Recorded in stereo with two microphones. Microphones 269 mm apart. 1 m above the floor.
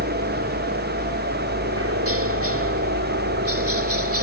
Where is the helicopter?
60° right (ahead or behind).